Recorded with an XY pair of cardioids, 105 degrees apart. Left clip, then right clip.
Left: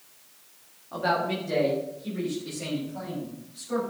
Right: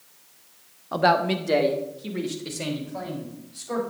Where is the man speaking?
70° right, 1.1 m.